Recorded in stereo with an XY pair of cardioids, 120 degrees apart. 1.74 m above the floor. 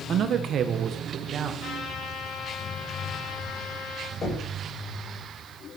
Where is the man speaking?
55° right, 1.2 m; by 1.5 s 50° right, 2.0 m.